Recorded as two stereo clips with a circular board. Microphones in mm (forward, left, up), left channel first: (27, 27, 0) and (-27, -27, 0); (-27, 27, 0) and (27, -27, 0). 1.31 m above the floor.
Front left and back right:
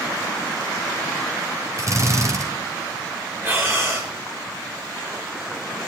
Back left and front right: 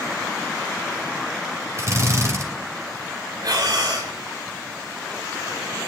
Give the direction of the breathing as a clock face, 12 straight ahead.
3 o'clock.